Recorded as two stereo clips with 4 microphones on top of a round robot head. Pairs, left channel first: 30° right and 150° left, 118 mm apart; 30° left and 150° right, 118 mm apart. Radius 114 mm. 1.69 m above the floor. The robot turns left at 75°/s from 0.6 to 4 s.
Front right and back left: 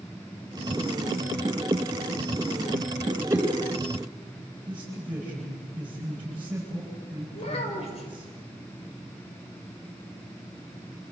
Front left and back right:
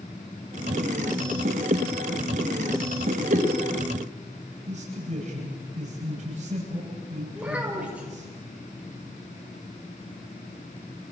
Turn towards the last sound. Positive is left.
turn(degrees=-70)